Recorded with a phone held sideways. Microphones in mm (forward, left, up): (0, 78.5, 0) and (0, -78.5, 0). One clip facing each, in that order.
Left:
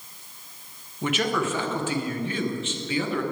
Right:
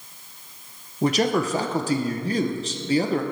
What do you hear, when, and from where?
1.0 s a man speaking: 40° right (ahead or behind), 0.6 m